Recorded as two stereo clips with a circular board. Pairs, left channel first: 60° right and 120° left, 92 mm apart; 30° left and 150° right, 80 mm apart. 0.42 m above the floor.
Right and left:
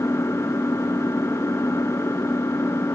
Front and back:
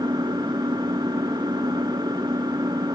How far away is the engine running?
About 2.5 m.